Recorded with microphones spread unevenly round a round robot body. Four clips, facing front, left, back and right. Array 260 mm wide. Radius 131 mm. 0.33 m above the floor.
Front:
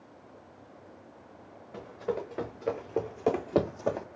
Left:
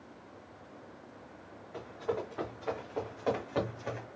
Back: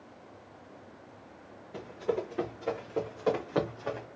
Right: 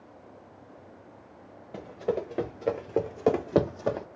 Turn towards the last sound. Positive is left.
turn(degrees=-40)